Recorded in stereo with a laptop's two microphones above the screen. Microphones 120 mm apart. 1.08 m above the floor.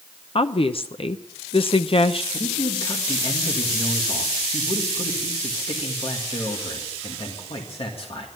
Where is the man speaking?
50° left (ahead or behind), 1.9 m.